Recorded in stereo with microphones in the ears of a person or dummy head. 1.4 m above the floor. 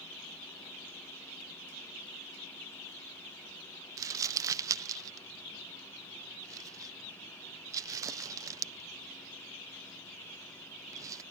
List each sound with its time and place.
4.0 s crumpling: 15° right (ahead or behind)